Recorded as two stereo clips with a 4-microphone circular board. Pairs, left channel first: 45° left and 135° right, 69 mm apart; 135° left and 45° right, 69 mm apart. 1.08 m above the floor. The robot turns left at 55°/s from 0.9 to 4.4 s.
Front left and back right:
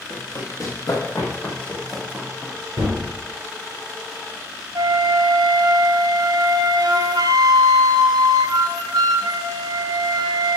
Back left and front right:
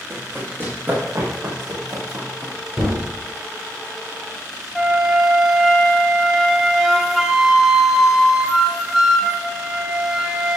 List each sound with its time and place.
0.1 s running footsteps: 15° left, 4 m; by 2.5 s 75° right, 2.5 m
2.8 s a gunshot: 120° right, 3.5 m; by 3.0 s 135° right, 3.5 m
4.8 s a flute: 130° right, 1.0 m